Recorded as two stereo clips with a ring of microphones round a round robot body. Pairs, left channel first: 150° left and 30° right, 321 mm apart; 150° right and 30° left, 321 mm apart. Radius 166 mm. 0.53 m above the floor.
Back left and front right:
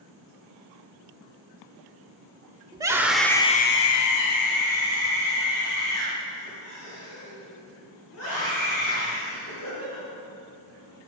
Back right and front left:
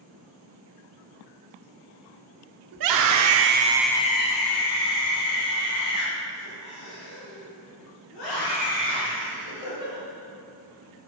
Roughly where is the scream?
Ahead left.